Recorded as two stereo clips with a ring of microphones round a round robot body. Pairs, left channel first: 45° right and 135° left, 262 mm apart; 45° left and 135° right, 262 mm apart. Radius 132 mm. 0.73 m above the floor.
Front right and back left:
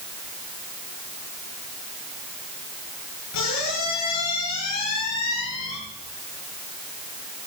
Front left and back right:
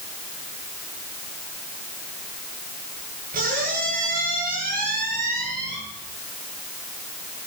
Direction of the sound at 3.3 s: 75° right.